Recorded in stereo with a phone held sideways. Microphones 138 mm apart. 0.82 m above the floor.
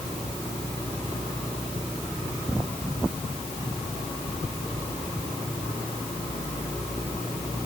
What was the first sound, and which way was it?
Only background noise.